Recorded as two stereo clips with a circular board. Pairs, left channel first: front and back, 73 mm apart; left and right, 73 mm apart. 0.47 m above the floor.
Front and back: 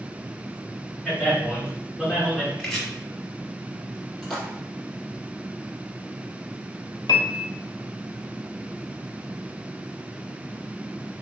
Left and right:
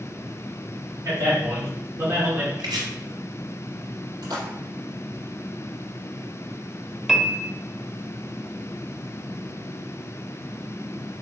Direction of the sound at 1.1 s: 80° right.